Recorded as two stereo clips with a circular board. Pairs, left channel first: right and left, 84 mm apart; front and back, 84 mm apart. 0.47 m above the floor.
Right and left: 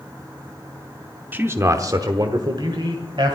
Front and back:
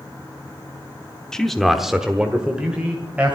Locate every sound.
1.3 s a man speaking: 75° left, 0.8 m; by 3.4 s 105° left, 1.9 m